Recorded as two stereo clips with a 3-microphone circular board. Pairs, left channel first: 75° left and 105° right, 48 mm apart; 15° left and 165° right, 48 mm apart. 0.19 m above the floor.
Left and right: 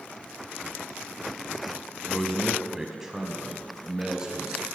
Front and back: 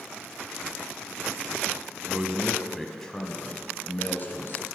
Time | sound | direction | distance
2.1 | a man speaking | 165° left | 1.1 m